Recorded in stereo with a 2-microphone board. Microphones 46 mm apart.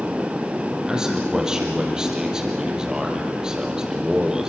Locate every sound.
0.9 s a man speaking: 15° right (ahead or behind), 4 m